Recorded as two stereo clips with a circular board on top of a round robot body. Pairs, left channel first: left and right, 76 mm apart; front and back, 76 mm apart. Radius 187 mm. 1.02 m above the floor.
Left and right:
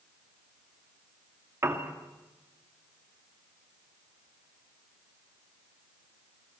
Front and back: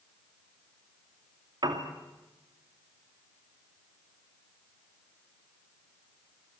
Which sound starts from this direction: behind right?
A piano, at 1.6 s.